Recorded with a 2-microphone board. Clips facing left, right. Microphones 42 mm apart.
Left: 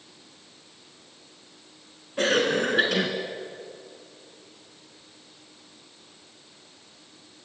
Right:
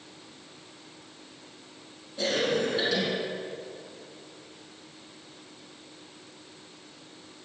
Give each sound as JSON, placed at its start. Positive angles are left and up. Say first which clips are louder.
{"t": 2.2, "sound": "a cough", "louder": "left 4 dB", "side_deg": 55, "distance_m": 2.5}